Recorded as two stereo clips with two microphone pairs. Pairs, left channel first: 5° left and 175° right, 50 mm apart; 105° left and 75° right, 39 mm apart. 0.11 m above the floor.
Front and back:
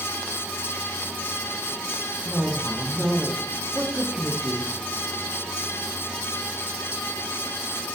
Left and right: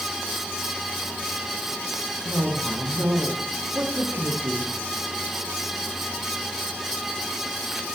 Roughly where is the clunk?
I don't hear a clunk.